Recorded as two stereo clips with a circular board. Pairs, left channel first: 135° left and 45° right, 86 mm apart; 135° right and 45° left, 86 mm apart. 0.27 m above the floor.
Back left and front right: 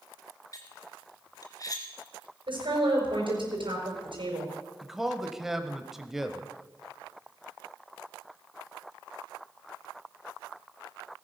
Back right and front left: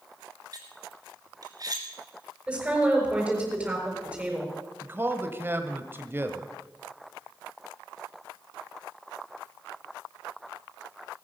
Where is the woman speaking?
35° right, 5.5 m.